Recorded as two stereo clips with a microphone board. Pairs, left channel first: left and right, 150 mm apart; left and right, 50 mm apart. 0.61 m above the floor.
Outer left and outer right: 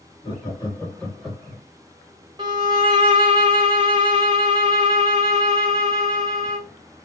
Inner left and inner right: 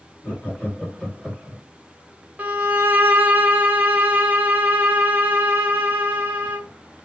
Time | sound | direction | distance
0.2 | laughter | 40° left (ahead or behind) | 1.3 m
2.4 | a violin | 30° right (ahead or behind) | 0.9 m